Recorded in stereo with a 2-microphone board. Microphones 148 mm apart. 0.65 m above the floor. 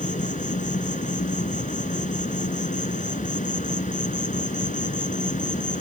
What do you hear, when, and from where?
0.0 s an insect: 65° left (ahead or behind)